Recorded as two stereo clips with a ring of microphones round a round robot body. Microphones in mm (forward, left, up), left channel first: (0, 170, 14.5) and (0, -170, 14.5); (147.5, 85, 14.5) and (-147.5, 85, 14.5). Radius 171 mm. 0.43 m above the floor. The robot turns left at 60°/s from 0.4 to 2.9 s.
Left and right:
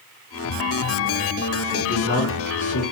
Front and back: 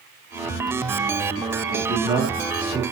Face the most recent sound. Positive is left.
turn(degrees=65)